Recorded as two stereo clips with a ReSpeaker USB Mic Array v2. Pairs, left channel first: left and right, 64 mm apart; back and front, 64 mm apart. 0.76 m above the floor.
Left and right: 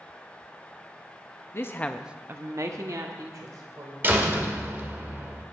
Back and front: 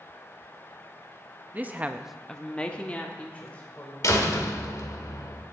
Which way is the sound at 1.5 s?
55° left.